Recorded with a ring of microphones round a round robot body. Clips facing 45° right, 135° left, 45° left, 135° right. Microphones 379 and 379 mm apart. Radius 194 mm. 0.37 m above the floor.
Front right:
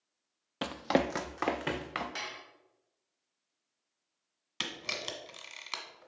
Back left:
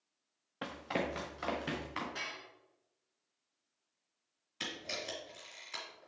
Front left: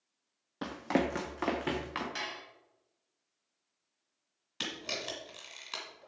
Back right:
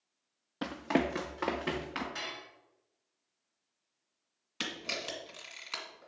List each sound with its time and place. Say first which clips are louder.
0.6 s running footsteps: front right 8 dB, even; 50° right, 0.5 m; by 2.0 s 35° right, 1.8 m
2.1 s dishes clattering: front right 2 dB, front left 1 dB; 15° right, 1.8 m
4.6 s a camera shutter: front right 2 dB, even; 40° right, 1.7 m